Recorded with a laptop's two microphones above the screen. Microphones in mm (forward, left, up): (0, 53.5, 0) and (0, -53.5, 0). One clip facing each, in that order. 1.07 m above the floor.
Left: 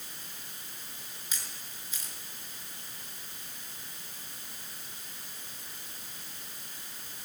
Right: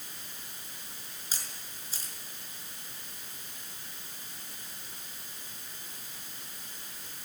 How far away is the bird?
I don't hear a bird.